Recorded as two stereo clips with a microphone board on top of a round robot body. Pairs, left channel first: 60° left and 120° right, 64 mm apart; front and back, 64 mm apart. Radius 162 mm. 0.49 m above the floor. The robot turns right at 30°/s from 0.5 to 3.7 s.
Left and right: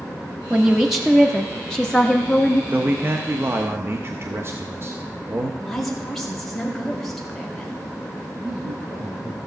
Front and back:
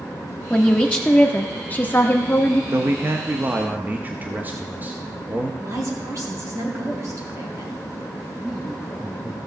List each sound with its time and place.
0.5 s a woman speaking: 50° right, 1.1 m; by 2.6 s 10° left, 1.1 m
2.7 s a man speaking: 160° right, 1.1 m; by 5.5 s 130° right, 1.1 m
5.6 s a woman speaking: 150° left, 2.5 m
8.4 s a man speaking: 110° right, 3.5 m